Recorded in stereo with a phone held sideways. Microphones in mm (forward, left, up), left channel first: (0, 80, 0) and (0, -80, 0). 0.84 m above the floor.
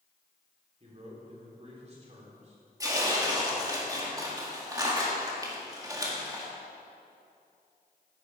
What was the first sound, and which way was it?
A man speaking, 45° right (ahead or behind).